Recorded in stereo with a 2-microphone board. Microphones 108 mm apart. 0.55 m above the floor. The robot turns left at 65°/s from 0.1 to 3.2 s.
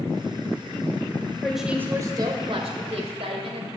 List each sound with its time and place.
1.4 s a woman speaking: 5° left, 1.9 m; by 3.7 s 110° right, 1.9 m